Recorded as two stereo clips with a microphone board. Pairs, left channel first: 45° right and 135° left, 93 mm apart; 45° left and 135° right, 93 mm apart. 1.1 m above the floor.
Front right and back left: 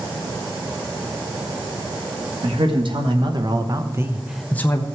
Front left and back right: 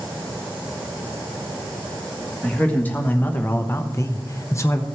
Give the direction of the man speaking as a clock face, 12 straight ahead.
8 o'clock.